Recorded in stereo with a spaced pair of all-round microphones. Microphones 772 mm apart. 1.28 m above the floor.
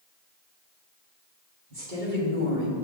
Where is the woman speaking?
85° right, 3 m; by 2.9 s 70° right (ahead or behind), 3 m.